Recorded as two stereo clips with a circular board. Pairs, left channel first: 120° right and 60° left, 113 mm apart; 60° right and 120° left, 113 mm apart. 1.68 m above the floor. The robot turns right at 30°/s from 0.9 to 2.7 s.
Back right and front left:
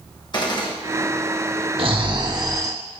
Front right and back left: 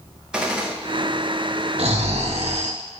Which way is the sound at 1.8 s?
95° left.